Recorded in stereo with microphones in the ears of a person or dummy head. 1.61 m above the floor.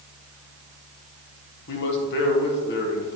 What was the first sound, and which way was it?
A man speaking, 60° left (ahead or behind).